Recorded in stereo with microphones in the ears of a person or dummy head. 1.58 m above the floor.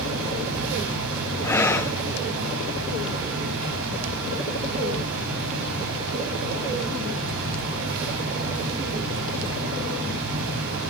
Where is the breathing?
10° left (ahead or behind), 1.1 m.